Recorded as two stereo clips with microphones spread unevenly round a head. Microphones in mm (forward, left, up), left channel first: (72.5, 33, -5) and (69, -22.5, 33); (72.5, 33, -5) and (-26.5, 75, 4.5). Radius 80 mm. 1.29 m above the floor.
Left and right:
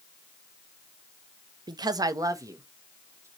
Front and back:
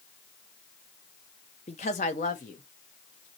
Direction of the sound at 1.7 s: 70° right.